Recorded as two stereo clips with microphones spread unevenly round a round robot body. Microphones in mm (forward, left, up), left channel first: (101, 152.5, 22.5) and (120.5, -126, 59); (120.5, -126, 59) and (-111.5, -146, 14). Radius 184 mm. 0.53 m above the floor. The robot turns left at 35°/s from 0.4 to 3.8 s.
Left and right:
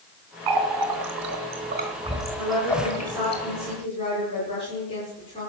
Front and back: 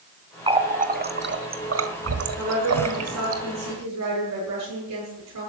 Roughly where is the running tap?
Right.